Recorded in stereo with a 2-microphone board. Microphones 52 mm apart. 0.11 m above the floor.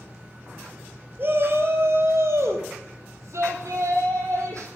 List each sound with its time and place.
1.2 s a shout: 45° right (ahead or behind), 2.5 m; by 4.7 s 70° right (ahead or behind), 5 m